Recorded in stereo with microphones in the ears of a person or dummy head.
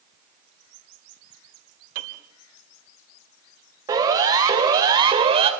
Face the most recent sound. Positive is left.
turn(degrees=-30)  # may be behind; listen again after turning